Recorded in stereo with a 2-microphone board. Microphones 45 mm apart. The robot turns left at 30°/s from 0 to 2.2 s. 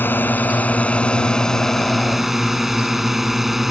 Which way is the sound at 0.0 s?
60° left.